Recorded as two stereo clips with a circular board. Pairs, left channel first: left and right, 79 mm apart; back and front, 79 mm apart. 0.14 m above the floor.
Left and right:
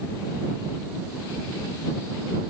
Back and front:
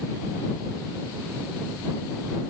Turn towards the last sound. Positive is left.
No sound to turn to.